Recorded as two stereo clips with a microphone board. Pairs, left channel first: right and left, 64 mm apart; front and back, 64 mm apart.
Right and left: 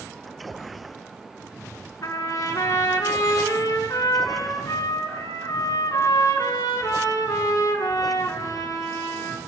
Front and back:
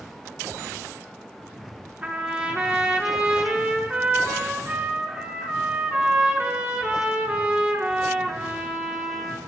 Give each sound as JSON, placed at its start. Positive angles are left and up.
{"t": 2.0, "sound": "a trumpet", "azimuth_deg": -115, "distance_m": 4.5}